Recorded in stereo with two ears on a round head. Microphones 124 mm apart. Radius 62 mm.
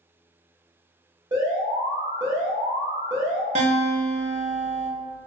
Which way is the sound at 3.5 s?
50° right (ahead or behind).